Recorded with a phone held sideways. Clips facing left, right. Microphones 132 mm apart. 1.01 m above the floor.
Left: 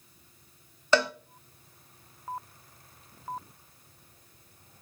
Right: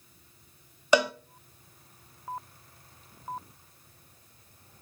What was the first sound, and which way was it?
A cowbell, 15° right (ahead or behind).